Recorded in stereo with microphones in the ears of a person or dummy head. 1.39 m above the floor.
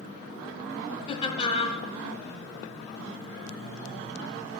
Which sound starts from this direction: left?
Laughter, at 1.1 s.